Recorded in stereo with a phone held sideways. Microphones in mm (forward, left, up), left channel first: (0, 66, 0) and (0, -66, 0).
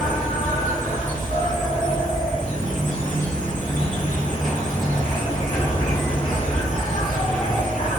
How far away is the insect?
About 1.8 m.